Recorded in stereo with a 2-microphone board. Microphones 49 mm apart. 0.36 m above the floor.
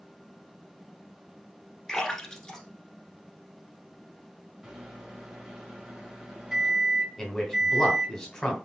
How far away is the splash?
About 1.2 m.